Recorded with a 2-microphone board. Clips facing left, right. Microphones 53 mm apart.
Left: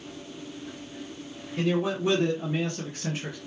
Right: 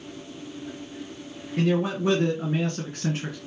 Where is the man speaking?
50° right (ahead or behind), 3.5 m.